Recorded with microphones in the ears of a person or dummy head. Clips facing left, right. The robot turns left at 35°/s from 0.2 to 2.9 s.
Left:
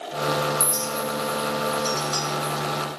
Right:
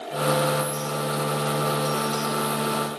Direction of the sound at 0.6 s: 60° left (ahead or behind).